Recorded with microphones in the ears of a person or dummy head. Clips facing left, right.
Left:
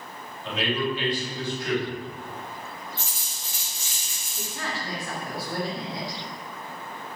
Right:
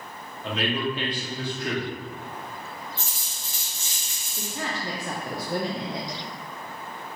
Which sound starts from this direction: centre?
A woman speaking, at 4.4 s.